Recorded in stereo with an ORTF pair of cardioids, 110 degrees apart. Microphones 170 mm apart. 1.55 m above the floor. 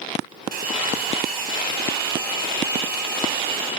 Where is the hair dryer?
55° right, 5.5 m.